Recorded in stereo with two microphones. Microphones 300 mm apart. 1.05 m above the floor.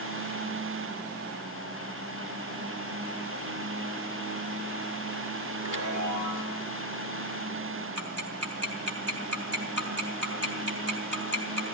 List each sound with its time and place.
5.6 s a chime: 85° right, 1.7 m
8.0 s ticking: 60° right (ahead or behind), 3.5 m